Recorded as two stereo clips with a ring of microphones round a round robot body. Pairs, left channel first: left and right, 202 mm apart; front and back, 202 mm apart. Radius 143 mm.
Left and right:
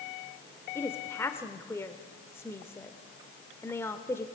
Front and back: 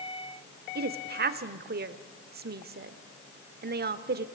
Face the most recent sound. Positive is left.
turn(degrees=170)